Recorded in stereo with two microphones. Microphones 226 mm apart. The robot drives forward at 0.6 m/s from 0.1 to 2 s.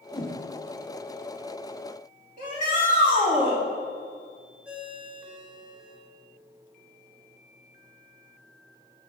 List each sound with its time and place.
0.1 s a whoosh: 20° left (ahead or behind), 0.9 m
2.4 s a shout: 35° right (ahead or behind), 3 m
4.7 s a ringtone: 5° right (ahead or behind), 2.5 m